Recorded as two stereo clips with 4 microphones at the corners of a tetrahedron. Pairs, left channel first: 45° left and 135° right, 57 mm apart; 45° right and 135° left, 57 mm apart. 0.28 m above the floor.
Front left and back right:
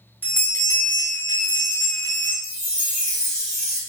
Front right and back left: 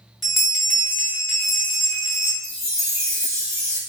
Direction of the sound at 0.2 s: 45° left.